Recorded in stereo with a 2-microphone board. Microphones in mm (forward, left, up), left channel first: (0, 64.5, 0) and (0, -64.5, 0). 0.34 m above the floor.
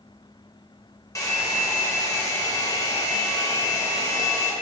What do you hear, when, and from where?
1.1 s a hair dryer: 25° left (ahead or behind), 0.6 m